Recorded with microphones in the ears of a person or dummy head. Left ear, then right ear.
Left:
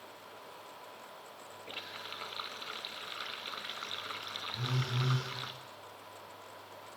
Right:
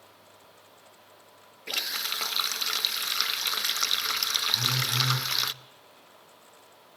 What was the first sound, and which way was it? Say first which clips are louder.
A running tap: right 14 dB; 80° right.